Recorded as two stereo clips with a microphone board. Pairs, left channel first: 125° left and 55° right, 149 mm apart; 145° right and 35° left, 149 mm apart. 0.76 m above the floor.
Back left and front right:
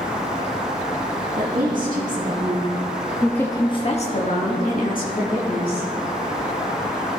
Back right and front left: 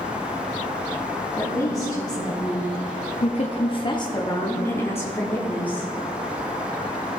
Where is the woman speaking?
75° right, 1.8 m; by 5.9 s 135° left, 2.5 m.